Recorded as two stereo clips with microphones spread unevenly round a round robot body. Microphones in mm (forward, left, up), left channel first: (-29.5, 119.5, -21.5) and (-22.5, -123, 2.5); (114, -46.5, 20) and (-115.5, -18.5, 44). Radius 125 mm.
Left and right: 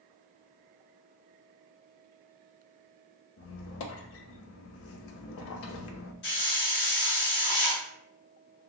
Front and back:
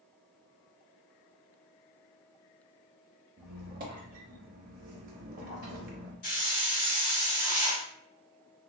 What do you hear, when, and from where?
3.4 s a squeak: 125° left, 0.5 m
6.2 s a hiss: 45° left, 1.4 m